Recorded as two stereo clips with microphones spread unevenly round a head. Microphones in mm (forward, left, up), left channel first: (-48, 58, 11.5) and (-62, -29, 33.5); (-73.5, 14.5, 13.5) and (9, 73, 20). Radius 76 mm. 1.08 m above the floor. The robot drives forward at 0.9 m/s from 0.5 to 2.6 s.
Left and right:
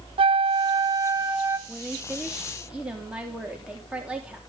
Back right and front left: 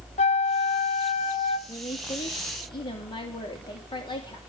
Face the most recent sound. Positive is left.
turn(degrees=180)